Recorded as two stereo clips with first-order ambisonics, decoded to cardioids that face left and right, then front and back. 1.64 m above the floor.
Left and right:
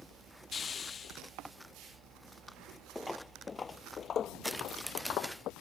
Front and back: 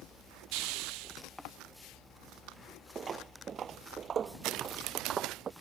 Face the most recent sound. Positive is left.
turn(degrees=120)